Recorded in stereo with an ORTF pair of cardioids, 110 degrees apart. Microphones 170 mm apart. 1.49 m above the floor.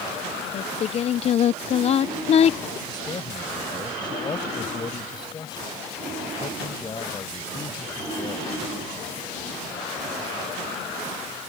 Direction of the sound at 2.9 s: 30° left.